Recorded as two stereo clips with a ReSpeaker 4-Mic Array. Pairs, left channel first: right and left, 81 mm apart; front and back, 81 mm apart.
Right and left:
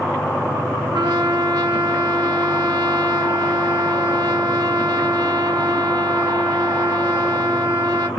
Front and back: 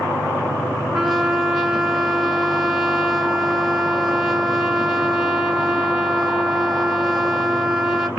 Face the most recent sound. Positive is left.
turn(degrees=95)